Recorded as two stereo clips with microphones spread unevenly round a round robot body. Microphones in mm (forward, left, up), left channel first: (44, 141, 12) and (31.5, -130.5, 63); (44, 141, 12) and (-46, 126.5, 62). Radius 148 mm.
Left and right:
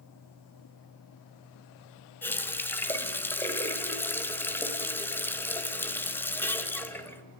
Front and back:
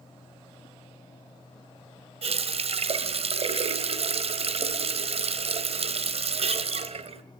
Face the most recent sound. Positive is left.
turn(degrees=165)